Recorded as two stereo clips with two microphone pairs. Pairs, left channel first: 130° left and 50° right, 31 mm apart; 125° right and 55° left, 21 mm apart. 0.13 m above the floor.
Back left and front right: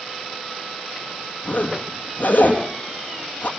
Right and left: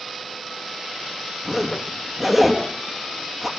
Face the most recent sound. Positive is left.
turn(degrees=140)